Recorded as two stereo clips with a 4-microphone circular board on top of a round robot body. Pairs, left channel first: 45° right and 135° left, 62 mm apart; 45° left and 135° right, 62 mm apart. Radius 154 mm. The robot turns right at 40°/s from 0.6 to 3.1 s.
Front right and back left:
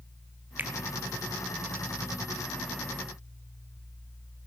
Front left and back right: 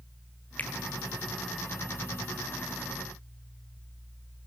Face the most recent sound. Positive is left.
turn(degrees=-165)